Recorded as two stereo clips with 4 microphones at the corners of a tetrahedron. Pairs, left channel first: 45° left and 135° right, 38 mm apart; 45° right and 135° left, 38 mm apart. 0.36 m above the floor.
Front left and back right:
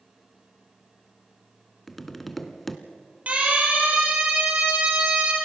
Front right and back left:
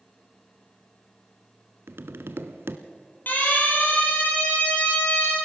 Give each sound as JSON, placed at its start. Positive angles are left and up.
{"t": 1.9, "sound": "tapping", "azimuth_deg": 130, "distance_m": 0.9}
{"t": 3.3, "sound": "a siren", "azimuth_deg": -85, "distance_m": 7.0}